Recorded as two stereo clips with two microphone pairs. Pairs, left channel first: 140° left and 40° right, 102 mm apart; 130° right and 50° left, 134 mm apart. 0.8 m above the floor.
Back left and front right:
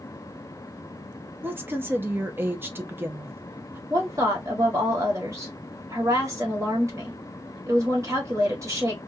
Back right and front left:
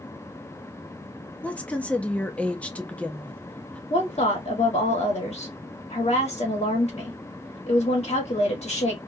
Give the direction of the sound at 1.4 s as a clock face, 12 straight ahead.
2 o'clock.